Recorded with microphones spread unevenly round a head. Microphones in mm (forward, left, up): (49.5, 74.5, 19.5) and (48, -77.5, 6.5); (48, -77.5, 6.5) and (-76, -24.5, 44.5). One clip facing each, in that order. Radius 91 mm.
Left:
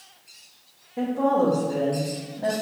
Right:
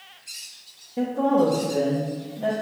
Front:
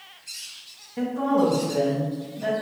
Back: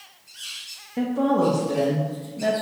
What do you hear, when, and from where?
1.0 s a woman speaking: 165° right, 0.6 m